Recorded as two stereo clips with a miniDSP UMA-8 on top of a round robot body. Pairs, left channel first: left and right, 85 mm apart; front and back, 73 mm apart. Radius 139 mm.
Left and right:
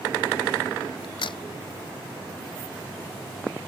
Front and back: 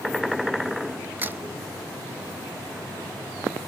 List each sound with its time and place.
1.0 s a crack: 115° left